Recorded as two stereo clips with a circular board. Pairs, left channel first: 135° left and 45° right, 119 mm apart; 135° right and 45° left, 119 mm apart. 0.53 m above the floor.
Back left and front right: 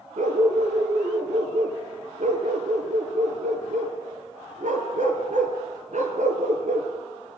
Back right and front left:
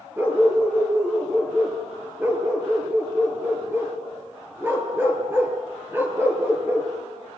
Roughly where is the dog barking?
Ahead right.